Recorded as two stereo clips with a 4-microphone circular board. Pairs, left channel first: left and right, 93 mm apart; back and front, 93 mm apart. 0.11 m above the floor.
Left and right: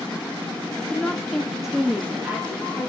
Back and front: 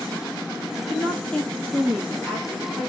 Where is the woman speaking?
140° left, 1.4 m; by 2.9 s 85° right, 1.5 m.